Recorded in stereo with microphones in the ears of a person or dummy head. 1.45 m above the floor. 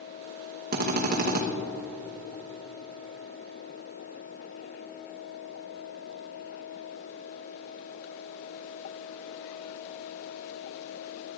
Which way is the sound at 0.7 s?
45° right (ahead or behind).